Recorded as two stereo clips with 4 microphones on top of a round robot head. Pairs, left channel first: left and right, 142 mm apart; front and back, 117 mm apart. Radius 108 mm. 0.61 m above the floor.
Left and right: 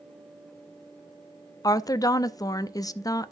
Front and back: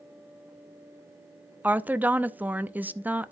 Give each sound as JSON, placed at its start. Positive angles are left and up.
{"t": 1.6, "sound": "a woman speaking", "azimuth_deg": 115, "distance_m": 0.6}